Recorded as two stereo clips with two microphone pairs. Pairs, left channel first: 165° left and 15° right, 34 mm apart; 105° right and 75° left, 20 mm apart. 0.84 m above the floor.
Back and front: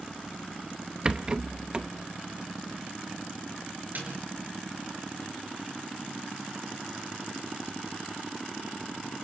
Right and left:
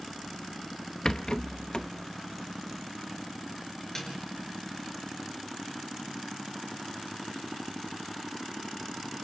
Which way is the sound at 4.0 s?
40° right.